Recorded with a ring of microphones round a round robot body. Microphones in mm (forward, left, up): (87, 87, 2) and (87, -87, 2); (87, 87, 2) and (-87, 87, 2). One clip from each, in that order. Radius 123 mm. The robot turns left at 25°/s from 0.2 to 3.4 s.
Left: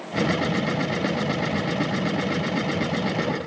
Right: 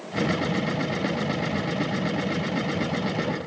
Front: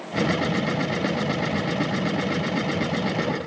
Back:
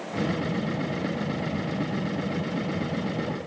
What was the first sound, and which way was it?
Only background noise.